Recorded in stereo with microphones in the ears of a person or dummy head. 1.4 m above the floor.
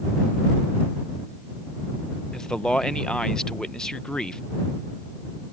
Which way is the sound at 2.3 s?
5° left (ahead or behind).